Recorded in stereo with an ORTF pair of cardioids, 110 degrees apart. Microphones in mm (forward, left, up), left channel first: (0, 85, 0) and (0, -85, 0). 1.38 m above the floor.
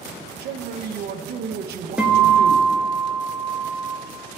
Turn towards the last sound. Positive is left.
turn(degrees=-5)